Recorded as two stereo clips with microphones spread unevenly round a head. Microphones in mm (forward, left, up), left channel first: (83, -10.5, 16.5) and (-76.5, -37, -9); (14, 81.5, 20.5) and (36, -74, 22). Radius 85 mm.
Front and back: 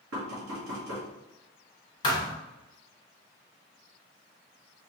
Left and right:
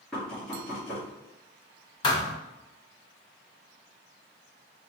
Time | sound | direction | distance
0.1 | knocking | 175° right | 1.0 m
2.0 | a thud | 45° left | 0.7 m